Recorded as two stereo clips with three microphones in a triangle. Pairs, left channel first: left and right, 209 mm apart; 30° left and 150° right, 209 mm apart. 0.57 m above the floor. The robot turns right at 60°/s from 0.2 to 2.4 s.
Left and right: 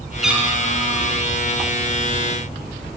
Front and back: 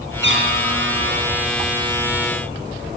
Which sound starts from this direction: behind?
A cat meowing, at 0.2 s.